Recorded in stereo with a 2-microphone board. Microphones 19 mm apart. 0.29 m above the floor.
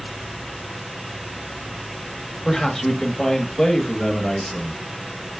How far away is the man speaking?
About 0.9 m.